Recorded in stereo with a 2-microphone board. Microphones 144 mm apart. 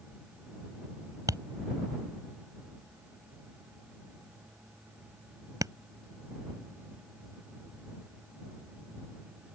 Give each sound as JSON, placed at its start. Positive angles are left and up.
{"t": 1.3, "sound": "tapping", "side_deg": -25}